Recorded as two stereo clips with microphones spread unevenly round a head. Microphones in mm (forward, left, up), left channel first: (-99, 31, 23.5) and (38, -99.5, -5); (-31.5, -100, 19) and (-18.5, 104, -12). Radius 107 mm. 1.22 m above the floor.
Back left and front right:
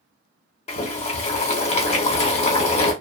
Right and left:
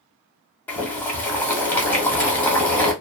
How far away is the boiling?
About 1.0 m.